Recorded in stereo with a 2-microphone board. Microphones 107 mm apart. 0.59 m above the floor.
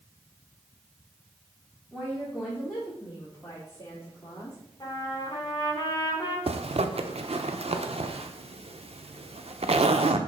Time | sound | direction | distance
1.9 | a woman speaking | 10° right (ahead or behind) | 1.8 m
4.8 | a trumpet | 40° left (ahead or behind) | 2 m
6.5 | a zipper | 70° right (ahead or behind) | 0.6 m